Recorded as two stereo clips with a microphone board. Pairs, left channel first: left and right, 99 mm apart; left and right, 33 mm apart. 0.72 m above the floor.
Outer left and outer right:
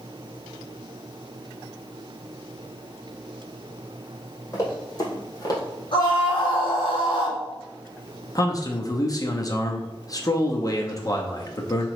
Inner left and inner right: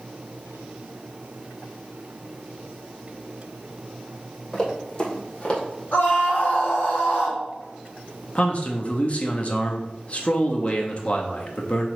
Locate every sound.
4.5 s running footsteps: 30° left (ahead or behind), 1.9 m; by 5.6 s 40° left (ahead or behind), 1.4 m
5.9 s a scream: 55° left (ahead or behind), 1.6 m
8.3 s a man speaking: 40° left (ahead or behind), 0.7 m